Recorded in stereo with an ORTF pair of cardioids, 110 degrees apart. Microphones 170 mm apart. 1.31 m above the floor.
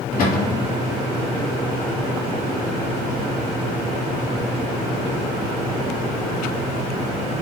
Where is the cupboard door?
55° left, 3 m.